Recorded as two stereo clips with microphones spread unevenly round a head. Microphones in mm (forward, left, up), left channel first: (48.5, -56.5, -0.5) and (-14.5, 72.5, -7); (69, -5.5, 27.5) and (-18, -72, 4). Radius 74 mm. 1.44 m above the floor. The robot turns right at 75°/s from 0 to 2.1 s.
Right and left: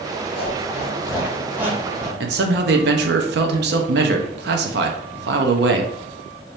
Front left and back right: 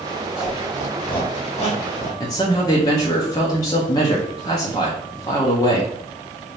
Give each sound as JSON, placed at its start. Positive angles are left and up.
{"t": 0.4, "sound": "a squeak", "azimuth_deg": -60, "distance_m": 1.6}
{"t": 2.2, "sound": "a man speaking", "azimuth_deg": 105, "distance_m": 0.6}